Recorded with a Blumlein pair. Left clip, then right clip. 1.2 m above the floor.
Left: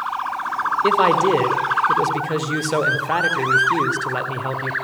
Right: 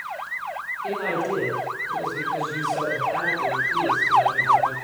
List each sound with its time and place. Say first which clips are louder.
0.8 s a man speaking: left 10 dB; 40° left, 3.5 m